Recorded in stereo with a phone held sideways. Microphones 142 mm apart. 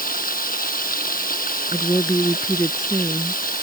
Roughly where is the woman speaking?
Left.